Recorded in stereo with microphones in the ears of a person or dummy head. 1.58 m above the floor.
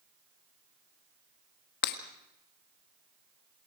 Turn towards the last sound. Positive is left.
turn(degrees=55)  # may be behind; listen again after turning